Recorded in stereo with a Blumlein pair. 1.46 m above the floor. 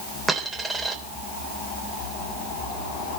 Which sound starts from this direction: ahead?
A dropped coin, at 0.3 s.